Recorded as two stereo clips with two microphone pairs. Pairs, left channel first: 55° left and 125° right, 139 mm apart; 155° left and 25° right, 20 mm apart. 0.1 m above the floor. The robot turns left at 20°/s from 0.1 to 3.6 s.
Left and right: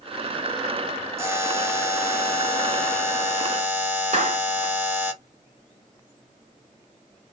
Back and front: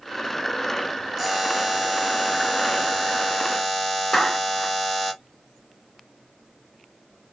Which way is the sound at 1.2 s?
110° right.